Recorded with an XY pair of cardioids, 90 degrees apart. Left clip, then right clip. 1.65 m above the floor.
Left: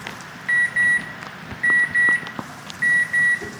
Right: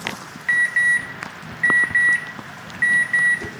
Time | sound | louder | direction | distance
0.5 | an alarm | right 1 dB | 30° right | 2 m